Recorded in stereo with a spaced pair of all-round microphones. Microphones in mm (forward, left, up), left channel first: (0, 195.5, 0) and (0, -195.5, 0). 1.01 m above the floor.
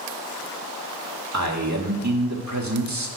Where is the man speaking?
45° right (ahead or behind), 1.5 m.